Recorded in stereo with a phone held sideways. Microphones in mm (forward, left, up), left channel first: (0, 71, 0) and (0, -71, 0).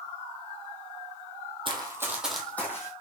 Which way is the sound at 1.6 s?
35° right (ahead or behind).